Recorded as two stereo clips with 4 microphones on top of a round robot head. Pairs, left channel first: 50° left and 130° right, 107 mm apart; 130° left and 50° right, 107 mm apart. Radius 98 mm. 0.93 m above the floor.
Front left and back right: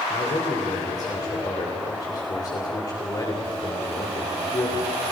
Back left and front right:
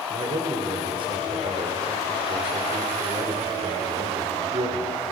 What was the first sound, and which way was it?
A man speaking, 5° right.